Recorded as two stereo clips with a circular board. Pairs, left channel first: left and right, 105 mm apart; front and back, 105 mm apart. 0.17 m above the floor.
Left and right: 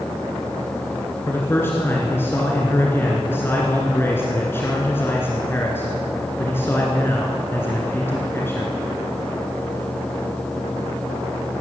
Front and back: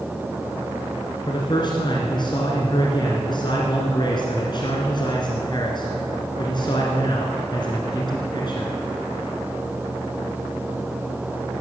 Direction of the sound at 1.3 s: 25° left.